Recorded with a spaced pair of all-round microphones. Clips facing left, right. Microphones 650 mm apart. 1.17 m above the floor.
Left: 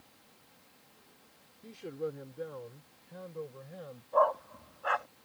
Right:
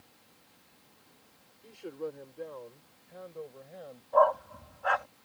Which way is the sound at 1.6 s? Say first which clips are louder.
Left 1 dB; 45° left (ahead or behind).